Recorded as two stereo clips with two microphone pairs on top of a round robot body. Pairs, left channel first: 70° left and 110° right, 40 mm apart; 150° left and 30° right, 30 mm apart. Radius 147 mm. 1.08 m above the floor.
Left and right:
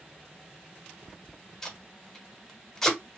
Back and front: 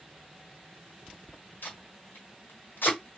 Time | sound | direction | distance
1.6 | tape being pulled | 150° left | 1.2 m